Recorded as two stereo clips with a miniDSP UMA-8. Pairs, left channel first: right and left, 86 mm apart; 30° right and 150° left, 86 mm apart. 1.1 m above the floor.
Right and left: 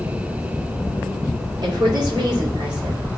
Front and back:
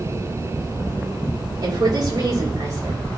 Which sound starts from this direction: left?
A woman speaking, at 1.6 s.